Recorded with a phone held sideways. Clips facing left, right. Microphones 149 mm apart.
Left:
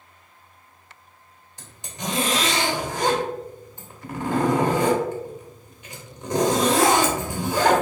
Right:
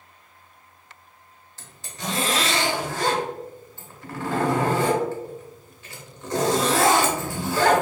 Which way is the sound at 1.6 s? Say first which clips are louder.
Left 1 dB; 15° left (ahead or behind).